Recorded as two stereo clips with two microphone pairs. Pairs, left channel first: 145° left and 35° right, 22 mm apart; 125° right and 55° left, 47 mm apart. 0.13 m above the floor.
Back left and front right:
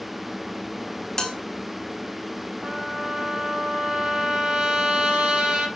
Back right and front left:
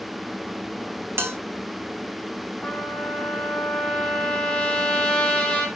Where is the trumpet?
55° right, 5 m.